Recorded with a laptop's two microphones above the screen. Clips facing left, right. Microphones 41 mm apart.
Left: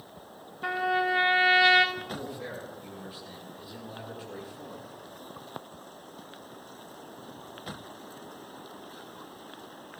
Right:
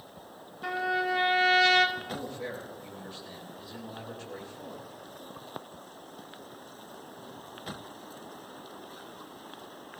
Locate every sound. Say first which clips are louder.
0.6 s a trumpet: left 2 dB; 20° left (ahead or behind), 1.2 m
1.9 s a man speaking: even; 15° left (ahead or behind), 9 m